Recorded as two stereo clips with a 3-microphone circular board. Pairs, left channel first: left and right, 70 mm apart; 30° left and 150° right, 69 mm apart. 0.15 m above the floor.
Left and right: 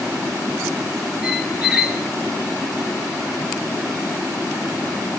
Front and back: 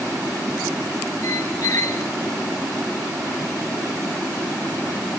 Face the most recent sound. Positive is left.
turn(degrees=-5)